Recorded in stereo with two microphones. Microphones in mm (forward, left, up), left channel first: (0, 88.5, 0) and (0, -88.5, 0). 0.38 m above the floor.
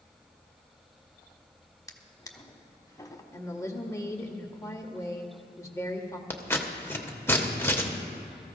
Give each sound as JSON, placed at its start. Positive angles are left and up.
{"t": 1.9, "sound": "a drawer", "side_deg": 20, "distance_m": 1.0}
{"t": 3.3, "sound": "a woman speaking", "side_deg": 15, "distance_m": 1.0}
{"t": 6.3, "sound": "scissors", "side_deg": 15, "distance_m": 1.0}